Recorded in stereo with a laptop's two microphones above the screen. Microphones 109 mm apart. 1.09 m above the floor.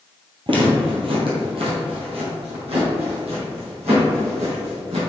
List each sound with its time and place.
0.5 s footsteps: 50° right (ahead or behind), 1.7 m; by 5.0 s 70° right (ahead or behind), 4 m